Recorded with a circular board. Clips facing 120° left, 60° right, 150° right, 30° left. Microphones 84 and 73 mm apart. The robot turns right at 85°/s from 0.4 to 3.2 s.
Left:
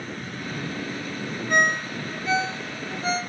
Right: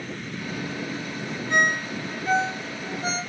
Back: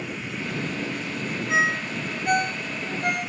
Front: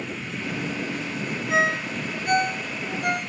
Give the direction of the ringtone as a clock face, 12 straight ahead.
7 o'clock.